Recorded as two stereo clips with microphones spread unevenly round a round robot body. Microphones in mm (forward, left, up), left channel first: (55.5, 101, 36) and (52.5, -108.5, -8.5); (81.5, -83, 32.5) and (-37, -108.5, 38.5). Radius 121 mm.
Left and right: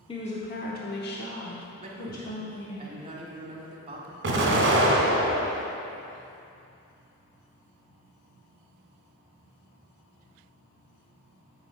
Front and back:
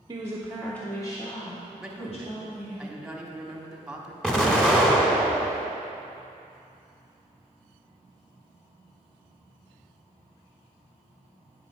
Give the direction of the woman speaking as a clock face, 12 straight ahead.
7 o'clock.